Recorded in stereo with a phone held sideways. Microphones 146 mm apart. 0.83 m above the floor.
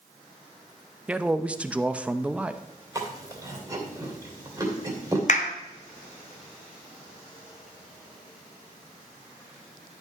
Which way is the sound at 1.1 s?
10° right (ahead or behind).